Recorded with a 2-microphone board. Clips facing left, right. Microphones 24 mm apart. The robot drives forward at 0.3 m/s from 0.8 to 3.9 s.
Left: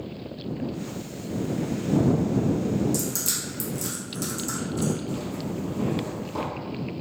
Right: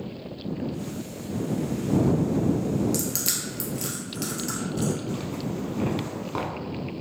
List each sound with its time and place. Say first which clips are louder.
2.9 s crushing: even; 55° right (ahead or behind), 0.9 m; by 4.9 s 45° right (ahead or behind), 1.0 m
5.1 s a zipper: even; 50° right (ahead or behind), 0.8 m